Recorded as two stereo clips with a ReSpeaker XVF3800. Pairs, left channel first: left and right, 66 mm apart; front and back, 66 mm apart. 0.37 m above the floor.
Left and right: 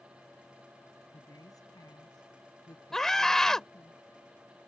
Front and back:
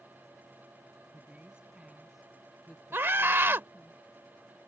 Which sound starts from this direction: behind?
A scream, at 2.9 s.